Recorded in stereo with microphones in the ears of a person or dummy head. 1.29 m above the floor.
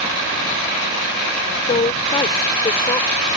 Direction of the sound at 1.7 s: 25° left (ahead or behind).